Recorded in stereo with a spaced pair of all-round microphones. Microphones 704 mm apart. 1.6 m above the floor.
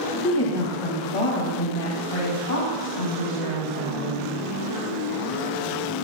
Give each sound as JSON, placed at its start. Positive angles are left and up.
{"t": 0.2, "sound": "a woman speaking", "side_deg": 35, "distance_m": 2.0}